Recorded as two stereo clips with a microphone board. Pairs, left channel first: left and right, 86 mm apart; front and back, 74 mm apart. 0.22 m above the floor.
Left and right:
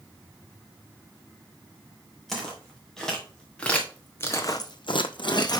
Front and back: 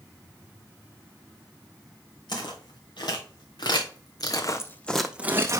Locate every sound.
2.3 s footsteps: 5° left, 2.5 m; by 5.6 s 130° left, 0.8 m